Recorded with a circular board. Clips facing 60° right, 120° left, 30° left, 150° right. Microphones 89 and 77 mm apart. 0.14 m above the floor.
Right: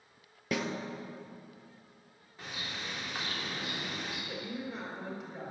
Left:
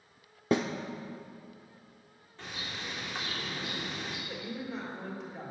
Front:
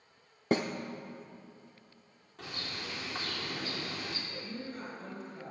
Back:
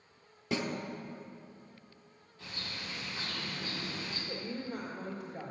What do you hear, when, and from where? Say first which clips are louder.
0.5 s a snare drum: left 6 dB, front 5 dB; 65° left, 1.1 m
2.4 s a bird: even, front 2 dB; 25° left, 3.5 m
4.3 s a woman speaking: left 1 dB, back 3 dB; 145° right, 3 m